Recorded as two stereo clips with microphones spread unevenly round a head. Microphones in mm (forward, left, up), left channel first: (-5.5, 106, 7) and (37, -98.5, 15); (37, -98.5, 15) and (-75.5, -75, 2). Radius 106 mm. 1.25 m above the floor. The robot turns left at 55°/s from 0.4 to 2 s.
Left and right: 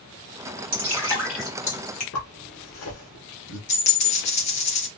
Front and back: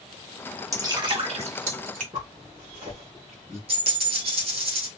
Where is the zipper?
100° left, 1.6 m.